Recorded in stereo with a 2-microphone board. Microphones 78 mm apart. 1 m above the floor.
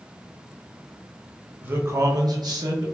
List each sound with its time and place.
1.6 s a man speaking: 25° right (ahead or behind), 0.6 m; by 2.9 s 60° right (ahead or behind), 0.7 m